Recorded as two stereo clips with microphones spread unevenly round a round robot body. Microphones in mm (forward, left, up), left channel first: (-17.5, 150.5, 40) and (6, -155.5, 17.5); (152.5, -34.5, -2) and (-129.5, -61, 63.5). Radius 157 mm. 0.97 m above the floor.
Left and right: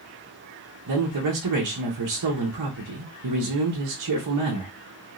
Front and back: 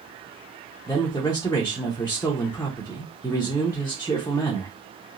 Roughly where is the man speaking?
Right.